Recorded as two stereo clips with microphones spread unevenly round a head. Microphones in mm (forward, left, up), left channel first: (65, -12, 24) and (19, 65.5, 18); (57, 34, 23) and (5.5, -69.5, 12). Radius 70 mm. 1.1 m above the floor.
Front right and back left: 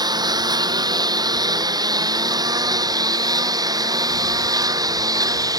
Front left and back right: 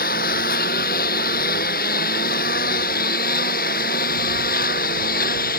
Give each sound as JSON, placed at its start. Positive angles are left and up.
{"t": 0.0, "sound": "a lawn mower", "azimuth_deg": 80}